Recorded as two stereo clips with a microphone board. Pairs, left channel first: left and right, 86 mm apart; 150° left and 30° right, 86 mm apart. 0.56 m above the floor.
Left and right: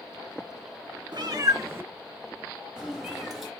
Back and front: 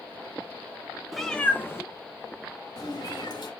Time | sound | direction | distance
1.1 | a cat meowing | 120° right | 0.6 m